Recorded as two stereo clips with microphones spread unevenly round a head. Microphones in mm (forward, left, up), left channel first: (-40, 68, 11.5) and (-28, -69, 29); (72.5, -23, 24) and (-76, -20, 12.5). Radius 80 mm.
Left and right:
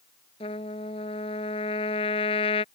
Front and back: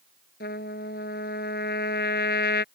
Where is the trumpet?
35° left.